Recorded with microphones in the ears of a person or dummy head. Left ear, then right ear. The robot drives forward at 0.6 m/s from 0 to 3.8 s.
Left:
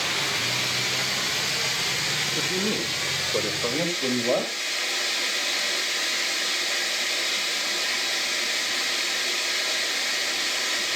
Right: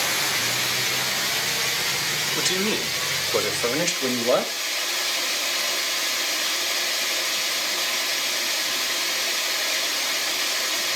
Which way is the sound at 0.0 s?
10° right (ahead or behind).